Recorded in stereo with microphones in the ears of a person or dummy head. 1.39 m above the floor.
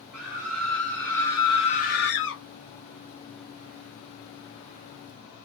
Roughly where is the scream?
Centre.